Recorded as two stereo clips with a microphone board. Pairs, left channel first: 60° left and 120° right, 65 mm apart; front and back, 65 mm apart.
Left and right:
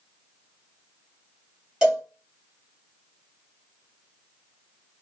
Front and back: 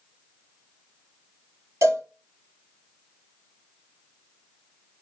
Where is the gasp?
No gasp in this recording.